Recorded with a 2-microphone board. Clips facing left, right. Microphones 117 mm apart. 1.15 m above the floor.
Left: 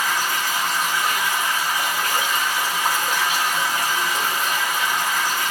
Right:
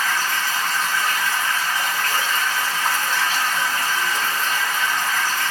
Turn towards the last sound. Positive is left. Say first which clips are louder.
# even
turn(degrees=15)  # may be behind; listen again after turning